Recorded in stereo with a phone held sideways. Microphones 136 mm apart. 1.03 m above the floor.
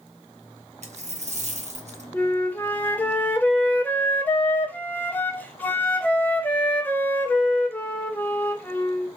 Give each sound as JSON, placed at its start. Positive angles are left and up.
{"t": 0.8, "sound": "a dropped coin", "side_deg": -55, "distance_m": 0.7}
{"t": 2.1, "sound": "a flute", "side_deg": 15, "distance_m": 0.6}